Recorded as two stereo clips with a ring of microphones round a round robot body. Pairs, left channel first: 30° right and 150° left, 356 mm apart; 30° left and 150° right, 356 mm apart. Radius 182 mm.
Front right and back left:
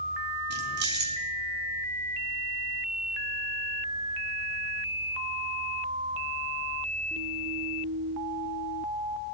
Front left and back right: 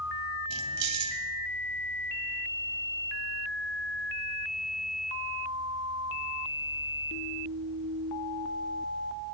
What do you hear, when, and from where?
0.5 s keys jangling: 150° right, 2.5 m